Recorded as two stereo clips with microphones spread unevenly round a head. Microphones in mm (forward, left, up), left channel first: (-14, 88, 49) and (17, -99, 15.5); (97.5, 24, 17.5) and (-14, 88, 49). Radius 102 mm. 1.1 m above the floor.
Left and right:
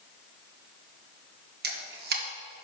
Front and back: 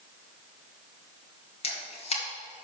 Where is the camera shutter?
60° right, 1.8 m.